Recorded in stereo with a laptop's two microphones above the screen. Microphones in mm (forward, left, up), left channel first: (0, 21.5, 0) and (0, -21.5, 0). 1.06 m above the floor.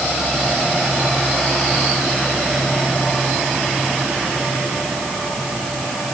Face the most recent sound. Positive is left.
No sound to turn to.